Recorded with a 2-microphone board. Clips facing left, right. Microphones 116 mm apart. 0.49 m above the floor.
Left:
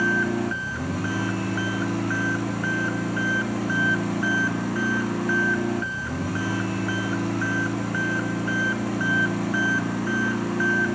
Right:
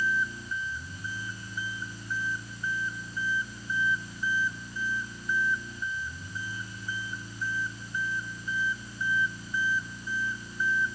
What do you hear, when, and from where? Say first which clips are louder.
0.0 s an engine running: left 9 dB; 70° left (ahead or behind)